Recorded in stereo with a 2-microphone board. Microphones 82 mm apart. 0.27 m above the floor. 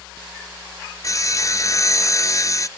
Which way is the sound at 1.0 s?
40° left (ahead or behind).